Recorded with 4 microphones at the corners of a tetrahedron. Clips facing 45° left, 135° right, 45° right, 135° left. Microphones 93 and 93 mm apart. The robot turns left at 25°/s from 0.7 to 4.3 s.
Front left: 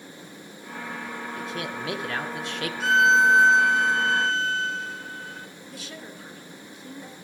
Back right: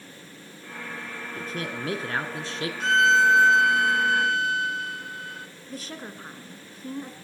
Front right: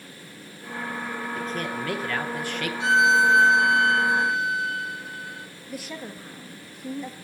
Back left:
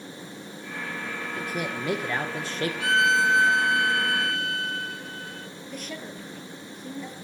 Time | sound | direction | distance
1.4 | a man speaking | 150° right | 1.4 m
2.8 | a violin | 35° right | 0.6 m
5.7 | a woman speaking | 125° right | 1.3 m